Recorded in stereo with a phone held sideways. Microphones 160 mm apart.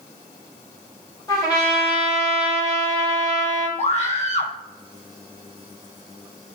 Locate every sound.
1.3 s a trumpet: 25° left (ahead or behind), 3 m
3.8 s a scream: 45° left (ahead or behind), 2.5 m